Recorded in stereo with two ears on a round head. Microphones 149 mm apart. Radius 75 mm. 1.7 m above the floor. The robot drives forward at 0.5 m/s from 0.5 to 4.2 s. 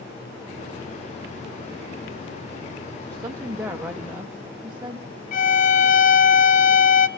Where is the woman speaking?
15° right (ahead or behind), 0.9 m; by 5.1 s 10° right (ahead or behind), 1.4 m.